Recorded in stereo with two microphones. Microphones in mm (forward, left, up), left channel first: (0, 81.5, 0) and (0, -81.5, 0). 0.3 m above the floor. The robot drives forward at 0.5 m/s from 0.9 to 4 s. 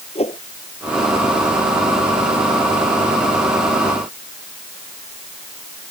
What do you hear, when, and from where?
0.1 s a whoosh: 40° left (ahead or behind)